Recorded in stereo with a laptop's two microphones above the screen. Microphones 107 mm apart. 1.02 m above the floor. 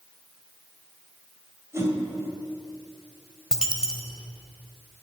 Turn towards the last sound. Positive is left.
turn(degrees=-5)  # may be behind; listen again after turning